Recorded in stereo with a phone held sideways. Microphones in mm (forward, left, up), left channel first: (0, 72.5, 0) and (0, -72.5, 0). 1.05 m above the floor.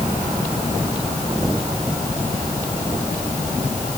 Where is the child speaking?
No child speaking in this recording.